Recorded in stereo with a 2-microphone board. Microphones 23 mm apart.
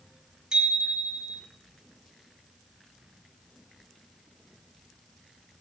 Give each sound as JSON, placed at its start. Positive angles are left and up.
{"t": 0.5, "sound": "a bicycle bell", "side_deg": -35, "distance_m": 7.0}